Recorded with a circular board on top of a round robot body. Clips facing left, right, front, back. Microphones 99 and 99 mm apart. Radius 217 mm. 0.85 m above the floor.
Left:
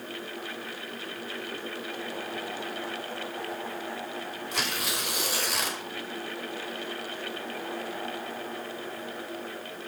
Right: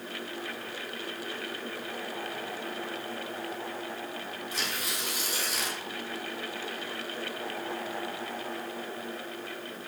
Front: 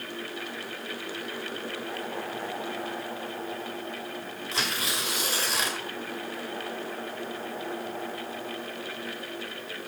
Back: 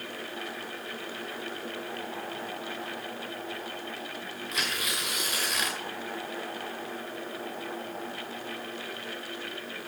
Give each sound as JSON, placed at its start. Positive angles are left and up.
{"t": 4.5, "sound": "tearing paper", "azimuth_deg": 60, "distance_m": 2.5}